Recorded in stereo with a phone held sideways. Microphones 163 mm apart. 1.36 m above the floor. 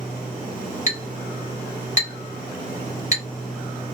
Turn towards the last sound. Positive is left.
turn(degrees=50)  # may be behind; listen again after turning